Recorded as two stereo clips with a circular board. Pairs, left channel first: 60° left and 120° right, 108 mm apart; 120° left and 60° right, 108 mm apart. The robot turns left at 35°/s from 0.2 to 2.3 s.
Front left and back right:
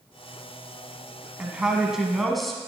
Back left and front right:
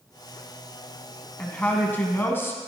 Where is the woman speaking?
Straight behind, 1.1 m; by 2.6 s 150° left, 1.1 m.